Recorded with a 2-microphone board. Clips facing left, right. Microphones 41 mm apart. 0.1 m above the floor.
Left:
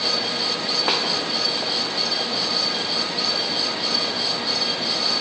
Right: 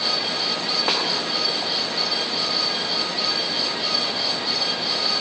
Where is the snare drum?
Centre (ahead or behind), 6.5 m.